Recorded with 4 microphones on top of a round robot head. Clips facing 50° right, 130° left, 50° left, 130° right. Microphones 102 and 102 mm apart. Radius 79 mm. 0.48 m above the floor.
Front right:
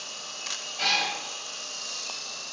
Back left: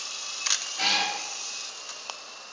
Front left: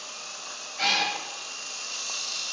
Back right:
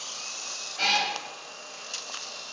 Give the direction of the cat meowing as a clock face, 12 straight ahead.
6 o'clock.